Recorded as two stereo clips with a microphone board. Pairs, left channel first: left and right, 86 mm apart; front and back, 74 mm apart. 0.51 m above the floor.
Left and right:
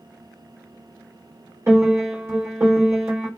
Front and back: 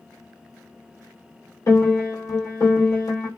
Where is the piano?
35° right, 1.2 m.